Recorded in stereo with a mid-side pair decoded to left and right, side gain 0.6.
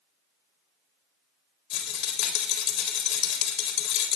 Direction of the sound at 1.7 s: 60° left.